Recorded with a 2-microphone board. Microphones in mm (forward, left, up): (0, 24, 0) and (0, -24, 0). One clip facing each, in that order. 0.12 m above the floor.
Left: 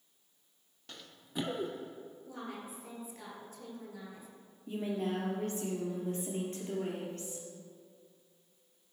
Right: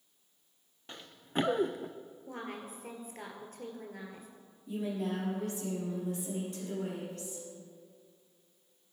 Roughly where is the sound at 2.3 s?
Right.